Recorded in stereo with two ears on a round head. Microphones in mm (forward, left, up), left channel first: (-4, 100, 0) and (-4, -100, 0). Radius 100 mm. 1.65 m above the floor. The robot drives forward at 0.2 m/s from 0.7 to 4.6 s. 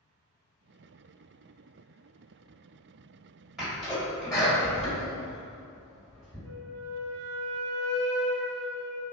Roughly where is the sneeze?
Centre.